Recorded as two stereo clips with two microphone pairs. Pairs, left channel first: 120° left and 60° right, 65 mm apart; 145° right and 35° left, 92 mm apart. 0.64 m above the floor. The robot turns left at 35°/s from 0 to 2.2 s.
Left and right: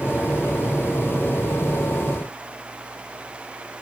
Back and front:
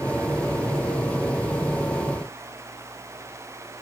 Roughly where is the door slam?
I don't hear a door slam.